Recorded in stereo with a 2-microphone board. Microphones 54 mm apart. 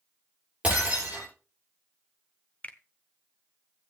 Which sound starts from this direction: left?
A finger snap, at 2.6 s.